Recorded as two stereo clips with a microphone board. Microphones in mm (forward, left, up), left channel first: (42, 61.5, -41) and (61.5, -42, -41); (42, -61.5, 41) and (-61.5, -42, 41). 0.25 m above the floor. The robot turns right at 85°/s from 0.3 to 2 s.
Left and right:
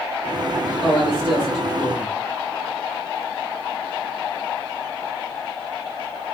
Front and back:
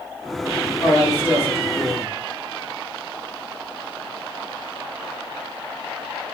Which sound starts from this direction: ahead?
A man speaking, at 0.8 s.